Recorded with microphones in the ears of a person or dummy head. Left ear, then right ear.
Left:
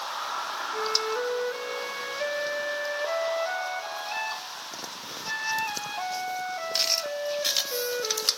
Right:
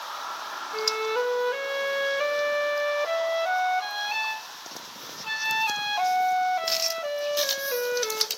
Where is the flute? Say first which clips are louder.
Right 2 dB; 35° right (ahead or behind), 0.6 m.